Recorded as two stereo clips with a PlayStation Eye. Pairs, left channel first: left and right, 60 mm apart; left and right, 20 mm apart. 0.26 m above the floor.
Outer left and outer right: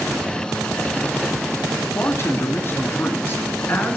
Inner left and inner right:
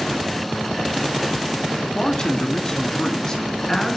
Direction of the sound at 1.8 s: 45° left (ahead or behind).